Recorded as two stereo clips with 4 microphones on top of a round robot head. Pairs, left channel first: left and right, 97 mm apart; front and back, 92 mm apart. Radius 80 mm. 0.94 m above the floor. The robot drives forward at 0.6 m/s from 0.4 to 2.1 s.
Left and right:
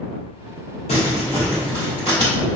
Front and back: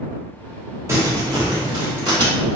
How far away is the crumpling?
About 1.1 m.